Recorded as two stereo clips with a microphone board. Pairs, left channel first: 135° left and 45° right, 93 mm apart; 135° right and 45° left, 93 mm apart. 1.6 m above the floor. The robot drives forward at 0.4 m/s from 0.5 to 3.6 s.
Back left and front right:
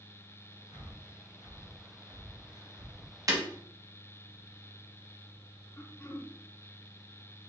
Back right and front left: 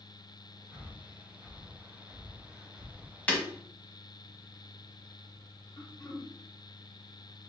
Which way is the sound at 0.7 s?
25° right.